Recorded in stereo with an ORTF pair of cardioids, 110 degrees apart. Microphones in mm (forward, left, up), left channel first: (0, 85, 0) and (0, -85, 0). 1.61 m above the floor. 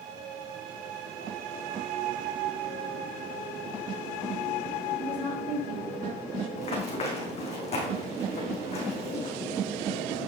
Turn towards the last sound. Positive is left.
turn(degrees=40)